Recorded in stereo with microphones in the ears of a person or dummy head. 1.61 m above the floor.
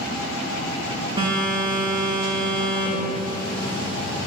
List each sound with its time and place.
1.2 s a phone buzzing: 20° right (ahead or behind), 1.8 m